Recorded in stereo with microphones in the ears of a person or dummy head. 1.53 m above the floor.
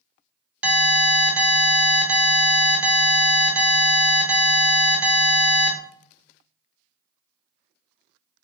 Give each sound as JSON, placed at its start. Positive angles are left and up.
{"t": 0.6, "sound": "an alarm", "side_deg": -5, "distance_m": 0.7}